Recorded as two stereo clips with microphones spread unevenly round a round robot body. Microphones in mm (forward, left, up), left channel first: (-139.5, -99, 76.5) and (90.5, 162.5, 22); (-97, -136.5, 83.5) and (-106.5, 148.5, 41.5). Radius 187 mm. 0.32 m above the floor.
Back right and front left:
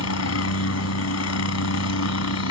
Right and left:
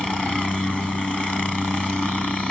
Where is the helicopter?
Straight behind.